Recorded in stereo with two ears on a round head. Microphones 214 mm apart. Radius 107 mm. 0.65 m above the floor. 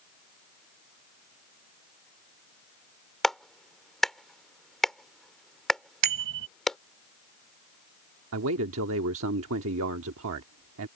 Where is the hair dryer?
I don't hear a hair dryer.